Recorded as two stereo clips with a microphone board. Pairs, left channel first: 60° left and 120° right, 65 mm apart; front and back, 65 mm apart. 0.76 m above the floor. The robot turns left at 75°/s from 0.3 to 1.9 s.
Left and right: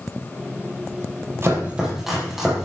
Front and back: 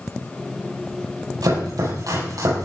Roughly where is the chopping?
Behind.